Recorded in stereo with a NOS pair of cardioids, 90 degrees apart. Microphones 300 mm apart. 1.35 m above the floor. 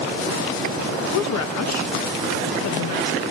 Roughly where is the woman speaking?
Ahead left.